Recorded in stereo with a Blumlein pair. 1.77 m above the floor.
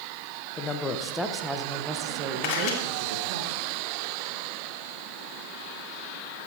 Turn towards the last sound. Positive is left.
turn(degrees=45)